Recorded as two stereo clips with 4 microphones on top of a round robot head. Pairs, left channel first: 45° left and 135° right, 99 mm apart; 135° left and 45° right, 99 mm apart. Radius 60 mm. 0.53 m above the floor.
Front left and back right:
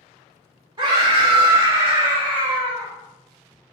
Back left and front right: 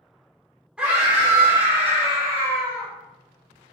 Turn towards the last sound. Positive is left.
turn(degrees=-50)